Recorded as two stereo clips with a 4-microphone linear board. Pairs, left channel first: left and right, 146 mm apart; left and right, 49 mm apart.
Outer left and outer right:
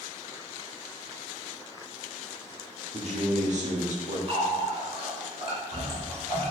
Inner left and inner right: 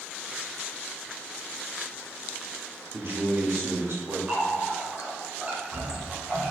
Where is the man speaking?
55° right (ahead or behind), 1.6 m.